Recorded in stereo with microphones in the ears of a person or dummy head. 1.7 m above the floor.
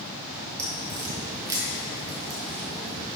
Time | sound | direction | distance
0.6 | a crack | 20° right (ahead or behind) | 1.3 m